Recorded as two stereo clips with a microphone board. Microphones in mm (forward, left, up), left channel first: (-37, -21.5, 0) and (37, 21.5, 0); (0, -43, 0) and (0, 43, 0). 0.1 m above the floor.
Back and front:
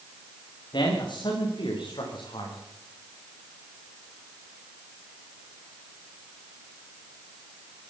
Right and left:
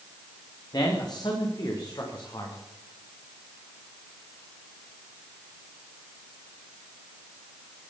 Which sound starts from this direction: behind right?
A man speaking, at 0.7 s.